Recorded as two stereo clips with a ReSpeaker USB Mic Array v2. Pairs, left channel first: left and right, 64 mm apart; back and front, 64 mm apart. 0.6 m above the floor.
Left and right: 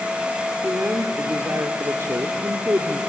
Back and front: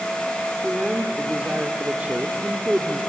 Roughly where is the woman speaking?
Ahead right.